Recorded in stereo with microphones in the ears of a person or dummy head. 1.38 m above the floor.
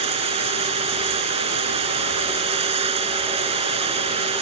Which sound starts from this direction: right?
Running water, at 0.0 s.